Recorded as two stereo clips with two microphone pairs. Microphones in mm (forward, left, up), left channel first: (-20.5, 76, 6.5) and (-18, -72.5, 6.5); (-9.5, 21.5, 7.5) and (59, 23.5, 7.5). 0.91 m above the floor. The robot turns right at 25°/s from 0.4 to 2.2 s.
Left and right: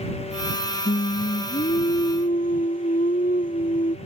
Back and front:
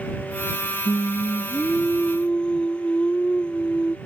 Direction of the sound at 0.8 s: 75° left.